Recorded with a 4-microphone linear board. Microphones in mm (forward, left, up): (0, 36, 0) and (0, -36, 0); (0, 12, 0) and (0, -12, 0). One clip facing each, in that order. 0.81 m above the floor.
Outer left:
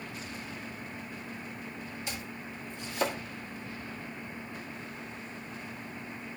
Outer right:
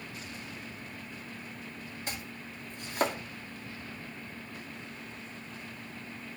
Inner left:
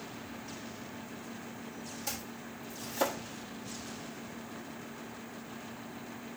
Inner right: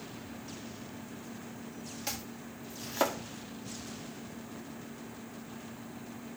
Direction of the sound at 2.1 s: 45° right (ahead or behind).